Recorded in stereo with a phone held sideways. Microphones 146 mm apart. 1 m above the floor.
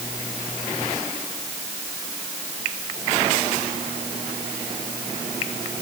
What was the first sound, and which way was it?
Only background noise.